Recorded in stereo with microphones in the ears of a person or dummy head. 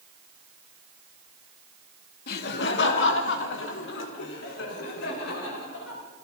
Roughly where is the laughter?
Left.